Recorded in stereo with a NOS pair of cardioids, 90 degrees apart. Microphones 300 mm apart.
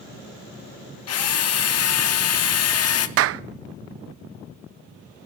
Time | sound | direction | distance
1.1 | a drill | 55° left | 1.5 m
3.2 | a clap | 50° right | 0.5 m